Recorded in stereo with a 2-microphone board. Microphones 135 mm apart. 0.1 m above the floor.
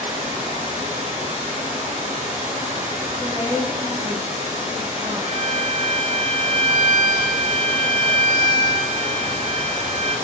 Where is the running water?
65° right (ahead or behind), 2 m.